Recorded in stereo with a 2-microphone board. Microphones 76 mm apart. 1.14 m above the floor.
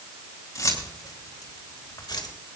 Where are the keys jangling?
45° left (ahead or behind), 4 m; by 2.3 s 75° left (ahead or behind), 3 m.